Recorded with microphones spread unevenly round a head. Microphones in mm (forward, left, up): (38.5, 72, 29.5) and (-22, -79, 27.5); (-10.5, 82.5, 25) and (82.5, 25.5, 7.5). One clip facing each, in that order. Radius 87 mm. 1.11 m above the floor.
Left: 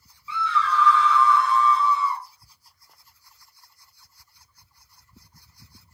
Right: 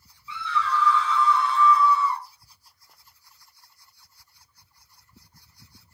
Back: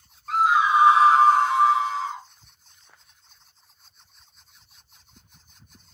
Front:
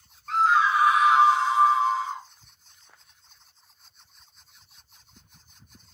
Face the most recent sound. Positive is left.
turn(degrees=150)